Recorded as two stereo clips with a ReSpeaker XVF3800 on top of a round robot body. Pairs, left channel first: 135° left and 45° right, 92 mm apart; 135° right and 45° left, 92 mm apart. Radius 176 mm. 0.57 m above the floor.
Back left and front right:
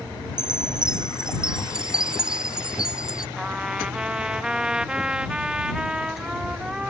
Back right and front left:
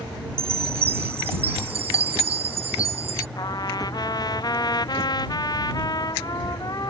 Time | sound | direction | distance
0.4 | a chime | 40° left | ?
3.4 | a trumpet | 120° right | ?